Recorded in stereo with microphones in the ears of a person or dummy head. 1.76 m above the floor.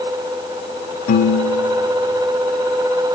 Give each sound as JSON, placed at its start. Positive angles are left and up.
{"t": 1.1, "sound": "a piano", "side_deg": 45, "distance_m": 2.0}